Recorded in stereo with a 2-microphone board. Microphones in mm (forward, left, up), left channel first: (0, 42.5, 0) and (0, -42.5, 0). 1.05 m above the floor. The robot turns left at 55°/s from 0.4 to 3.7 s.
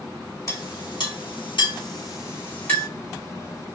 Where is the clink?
40° left (ahead or behind), 2.5 m; by 2.9 s 10° left (ahead or behind), 2.5 m.